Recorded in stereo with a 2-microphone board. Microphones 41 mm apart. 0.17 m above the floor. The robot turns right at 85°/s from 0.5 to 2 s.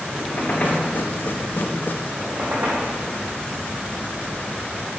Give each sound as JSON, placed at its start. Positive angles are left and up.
{"t": 0.1, "sound": "a squeak", "side_deg": 45, "distance_m": 2.0}
{"t": 2.2, "sound": "a squeak", "side_deg": -80, "distance_m": 4.0}